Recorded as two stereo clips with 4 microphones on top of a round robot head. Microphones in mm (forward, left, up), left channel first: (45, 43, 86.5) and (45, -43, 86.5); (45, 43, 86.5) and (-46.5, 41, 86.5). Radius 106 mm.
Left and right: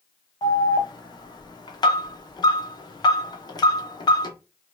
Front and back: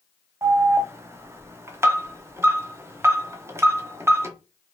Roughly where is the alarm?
Behind left.